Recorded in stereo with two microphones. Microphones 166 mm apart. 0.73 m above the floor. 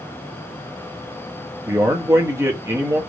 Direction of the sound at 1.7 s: 15° right (ahead or behind).